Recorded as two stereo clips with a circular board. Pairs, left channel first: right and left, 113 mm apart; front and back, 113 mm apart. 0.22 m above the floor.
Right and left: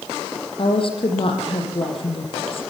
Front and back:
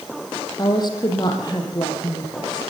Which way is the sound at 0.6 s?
50° right.